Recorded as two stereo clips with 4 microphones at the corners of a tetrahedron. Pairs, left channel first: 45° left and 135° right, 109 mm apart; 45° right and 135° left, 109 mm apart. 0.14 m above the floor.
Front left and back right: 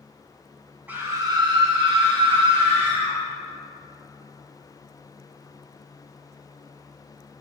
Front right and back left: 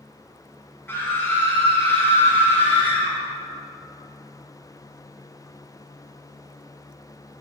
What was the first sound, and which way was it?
A scream, 80° right.